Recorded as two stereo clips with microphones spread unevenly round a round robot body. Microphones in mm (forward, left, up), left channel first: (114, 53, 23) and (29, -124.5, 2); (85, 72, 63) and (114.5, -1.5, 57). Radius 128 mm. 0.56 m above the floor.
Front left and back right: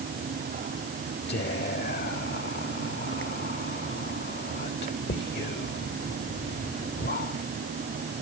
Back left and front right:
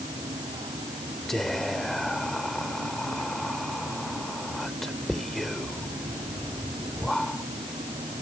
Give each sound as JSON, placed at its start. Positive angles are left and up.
{"t": 1.3, "sound": "whispering", "azimuth_deg": 25}